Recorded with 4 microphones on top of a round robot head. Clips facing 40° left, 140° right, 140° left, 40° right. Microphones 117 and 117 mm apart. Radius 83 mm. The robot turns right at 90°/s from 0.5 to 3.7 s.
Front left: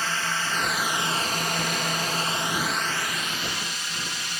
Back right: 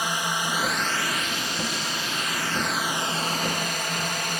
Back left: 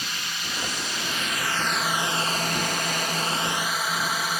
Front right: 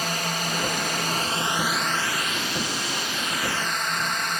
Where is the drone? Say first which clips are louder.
Back right 2 dB, front right 8 dB; 65° right; by 4.4 s 140° right.